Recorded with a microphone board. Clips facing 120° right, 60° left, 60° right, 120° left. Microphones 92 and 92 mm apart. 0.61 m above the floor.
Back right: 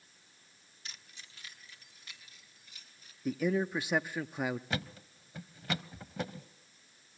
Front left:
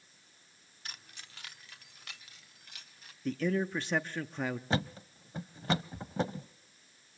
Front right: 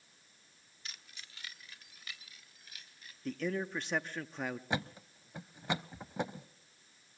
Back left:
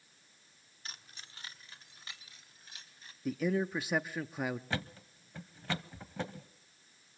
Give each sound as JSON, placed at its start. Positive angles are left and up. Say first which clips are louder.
{"t": 0.8, "sound": "keys jangling", "louder": "front left 3 dB, back left 2 dB", "azimuth_deg": 80, "distance_m": 0.9}
{"t": 3.2, "sound": "a man speaking", "louder": "even, back left 4 dB", "azimuth_deg": -175, "distance_m": 0.5}
{"t": 4.7, "sound": "a thud", "louder": "front left 5 dB, front right 2 dB", "azimuth_deg": 10, "distance_m": 0.6}